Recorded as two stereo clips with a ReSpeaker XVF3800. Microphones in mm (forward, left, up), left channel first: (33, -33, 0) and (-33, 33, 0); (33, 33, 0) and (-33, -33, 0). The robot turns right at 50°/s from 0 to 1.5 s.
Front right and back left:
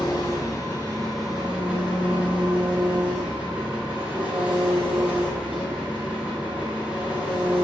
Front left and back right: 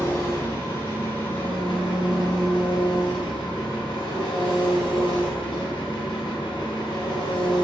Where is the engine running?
15° right, 0.8 m; by 7.7 s 60° left, 0.8 m.